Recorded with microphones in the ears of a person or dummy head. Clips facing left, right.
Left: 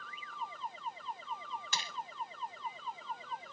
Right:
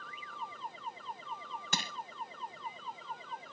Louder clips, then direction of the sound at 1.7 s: Right 5 dB; 45° right (ahead or behind).